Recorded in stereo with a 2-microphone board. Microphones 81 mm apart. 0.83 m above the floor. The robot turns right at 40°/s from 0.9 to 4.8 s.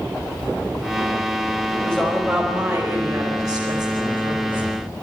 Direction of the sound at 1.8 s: 165° left.